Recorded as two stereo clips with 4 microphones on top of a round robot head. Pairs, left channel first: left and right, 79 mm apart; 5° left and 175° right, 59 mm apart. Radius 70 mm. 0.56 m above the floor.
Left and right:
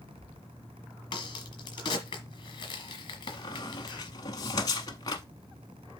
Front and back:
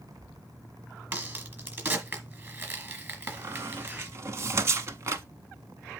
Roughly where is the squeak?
Behind left.